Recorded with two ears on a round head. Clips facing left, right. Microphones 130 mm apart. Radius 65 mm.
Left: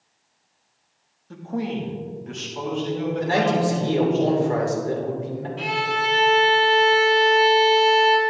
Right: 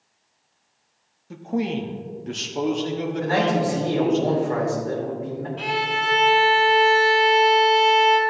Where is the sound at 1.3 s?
10° right (ahead or behind), 0.8 m; by 4.2 s 55° right (ahead or behind), 2 m.